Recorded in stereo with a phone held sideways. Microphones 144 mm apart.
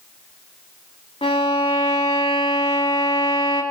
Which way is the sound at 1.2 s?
40° left (ahead or behind).